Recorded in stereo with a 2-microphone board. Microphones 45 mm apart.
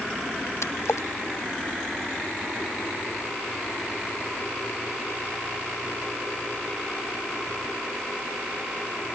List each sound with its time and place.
0.6 s a splash: 80° left